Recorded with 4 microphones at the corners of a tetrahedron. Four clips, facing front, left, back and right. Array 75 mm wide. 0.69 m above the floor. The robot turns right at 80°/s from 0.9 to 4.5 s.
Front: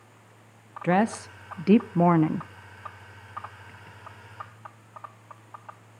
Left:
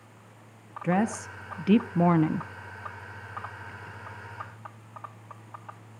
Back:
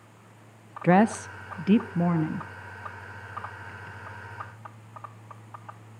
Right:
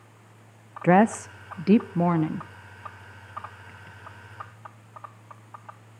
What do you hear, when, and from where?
0.8 s a woman speaking: 100° right, 0.5 m; by 2.5 s 25° left, 0.5 m